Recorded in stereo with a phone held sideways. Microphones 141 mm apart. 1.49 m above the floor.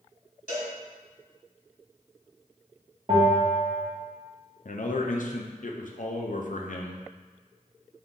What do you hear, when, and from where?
0.5 s a cowbell: 60° left (ahead or behind), 1.3 m
3.1 s a bell: 45° right (ahead or behind), 1.0 m
4.7 s a man speaking: 65° left (ahead or behind), 0.5 m